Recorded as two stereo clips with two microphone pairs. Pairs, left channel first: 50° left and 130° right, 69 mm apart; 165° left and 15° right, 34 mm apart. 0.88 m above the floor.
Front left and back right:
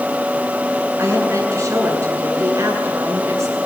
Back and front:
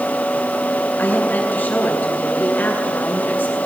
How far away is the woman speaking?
About 8.5 m.